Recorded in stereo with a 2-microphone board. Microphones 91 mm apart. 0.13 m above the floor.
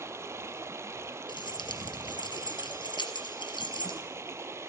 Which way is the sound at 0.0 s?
30° right (ahead or behind).